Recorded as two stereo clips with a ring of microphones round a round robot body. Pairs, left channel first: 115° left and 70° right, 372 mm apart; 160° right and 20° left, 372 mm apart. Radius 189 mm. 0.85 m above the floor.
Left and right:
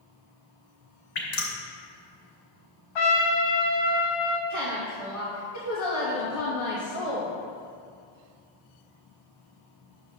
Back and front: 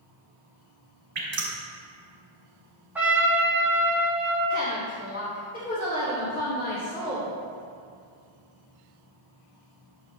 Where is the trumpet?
110° left, 1.3 m.